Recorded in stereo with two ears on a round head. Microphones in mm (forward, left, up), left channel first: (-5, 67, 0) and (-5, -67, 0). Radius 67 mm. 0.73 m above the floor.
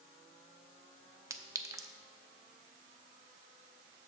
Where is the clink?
20° right (ahead or behind), 0.5 m.